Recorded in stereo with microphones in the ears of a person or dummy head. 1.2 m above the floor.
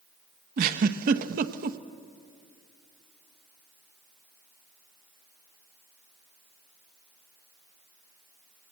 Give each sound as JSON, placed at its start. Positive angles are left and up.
{"t": 0.6, "sound": "a giggle", "side_deg": -50, "distance_m": 0.8}